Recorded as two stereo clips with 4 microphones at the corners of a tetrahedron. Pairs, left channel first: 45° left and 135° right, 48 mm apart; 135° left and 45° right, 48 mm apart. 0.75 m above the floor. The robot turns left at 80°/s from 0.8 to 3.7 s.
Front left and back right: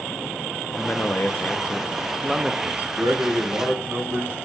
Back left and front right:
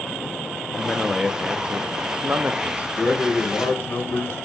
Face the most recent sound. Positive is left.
turn(degrees=165)